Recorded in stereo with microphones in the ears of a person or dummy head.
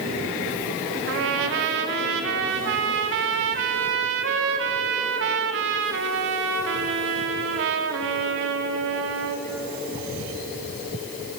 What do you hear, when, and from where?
1.1 s a trumpet: 65° right (ahead or behind), 2 m